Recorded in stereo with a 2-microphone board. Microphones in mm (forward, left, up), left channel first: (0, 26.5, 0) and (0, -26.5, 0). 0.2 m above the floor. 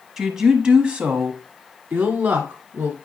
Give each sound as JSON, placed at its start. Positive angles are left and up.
{"t": 0.2, "sound": "a woman speaking", "side_deg": -5, "distance_m": 1.1}